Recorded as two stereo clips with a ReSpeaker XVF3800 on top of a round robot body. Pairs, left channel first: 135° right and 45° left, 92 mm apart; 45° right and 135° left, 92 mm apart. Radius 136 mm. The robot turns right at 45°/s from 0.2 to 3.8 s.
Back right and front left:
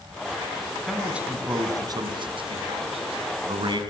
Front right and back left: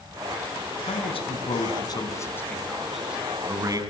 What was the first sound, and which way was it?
A man speaking, 45° right.